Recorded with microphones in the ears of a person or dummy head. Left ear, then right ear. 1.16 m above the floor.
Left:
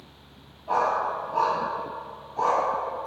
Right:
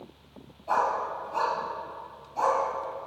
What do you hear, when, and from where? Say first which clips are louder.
0.7 s a dog barking: left 2 dB; 25° right (ahead or behind), 1.8 m